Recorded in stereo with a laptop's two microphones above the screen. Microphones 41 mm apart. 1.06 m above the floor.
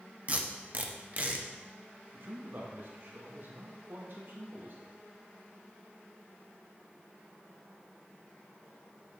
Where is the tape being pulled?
35° right (ahead or behind), 0.9 m.